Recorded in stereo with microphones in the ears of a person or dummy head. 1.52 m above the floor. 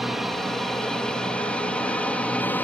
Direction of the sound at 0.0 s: 10° right (ahead or behind).